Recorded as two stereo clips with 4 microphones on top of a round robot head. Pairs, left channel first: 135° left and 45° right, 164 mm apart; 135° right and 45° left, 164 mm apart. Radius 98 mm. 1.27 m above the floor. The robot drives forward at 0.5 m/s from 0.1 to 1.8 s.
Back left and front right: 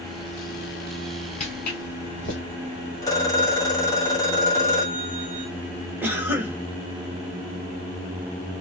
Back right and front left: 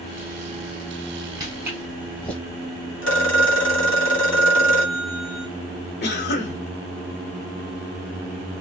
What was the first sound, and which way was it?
Footsteps, 105° left.